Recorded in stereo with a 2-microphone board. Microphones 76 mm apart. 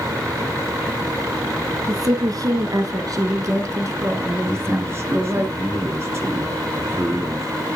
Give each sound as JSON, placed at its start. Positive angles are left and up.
{"t": 1.9, "sound": "a woman speaking", "side_deg": -55, "distance_m": 1.9}
{"t": 4.5, "sound": "a man speaking", "side_deg": -35, "distance_m": 2.5}